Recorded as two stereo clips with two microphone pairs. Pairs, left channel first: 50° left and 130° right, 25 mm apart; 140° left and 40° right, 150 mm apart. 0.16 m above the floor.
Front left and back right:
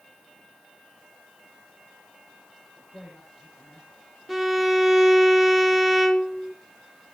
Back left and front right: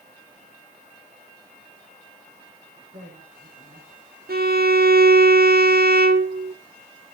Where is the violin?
50° right, 1.2 m.